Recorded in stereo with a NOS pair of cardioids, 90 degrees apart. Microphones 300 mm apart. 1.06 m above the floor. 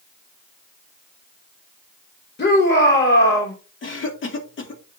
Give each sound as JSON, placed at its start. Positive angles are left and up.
{"t": 2.4, "sound": "a shout", "azimuth_deg": 40, "distance_m": 2.5}
{"t": 3.8, "sound": "a cough", "azimuth_deg": 45, "distance_m": 2.5}